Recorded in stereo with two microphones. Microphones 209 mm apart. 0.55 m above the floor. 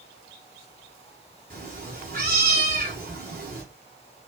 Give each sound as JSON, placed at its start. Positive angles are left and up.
{"t": 1.5, "sound": "a cat meowing", "side_deg": -45, "distance_m": 2.0}